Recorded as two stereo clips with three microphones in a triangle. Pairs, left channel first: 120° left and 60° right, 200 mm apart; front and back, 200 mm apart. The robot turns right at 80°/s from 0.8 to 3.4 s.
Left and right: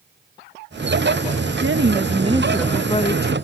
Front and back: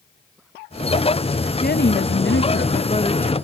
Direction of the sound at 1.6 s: 50° right.